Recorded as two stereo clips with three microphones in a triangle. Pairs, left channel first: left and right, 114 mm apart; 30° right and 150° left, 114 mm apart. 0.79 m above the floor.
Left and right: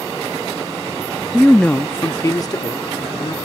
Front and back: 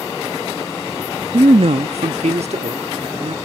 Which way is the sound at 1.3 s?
175° right.